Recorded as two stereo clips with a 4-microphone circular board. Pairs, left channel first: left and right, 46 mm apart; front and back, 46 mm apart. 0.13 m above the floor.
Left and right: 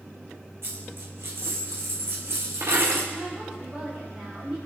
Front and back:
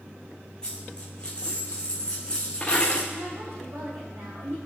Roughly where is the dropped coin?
Right.